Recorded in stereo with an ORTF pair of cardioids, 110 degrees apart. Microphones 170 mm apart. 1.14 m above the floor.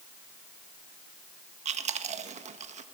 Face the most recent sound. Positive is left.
turn(degrees=-45)